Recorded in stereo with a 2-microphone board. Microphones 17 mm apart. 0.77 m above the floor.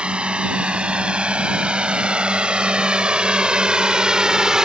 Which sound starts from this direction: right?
A drone, at 0.0 s.